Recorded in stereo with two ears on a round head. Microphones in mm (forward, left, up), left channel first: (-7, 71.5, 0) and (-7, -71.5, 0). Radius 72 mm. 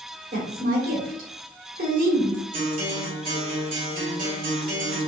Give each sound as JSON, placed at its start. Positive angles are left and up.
{"t": 0.3, "sound": "a woman speaking", "side_deg": -65, "distance_m": 2.0}
{"t": 2.5, "sound": "a guitar", "side_deg": -55, "distance_m": 2.0}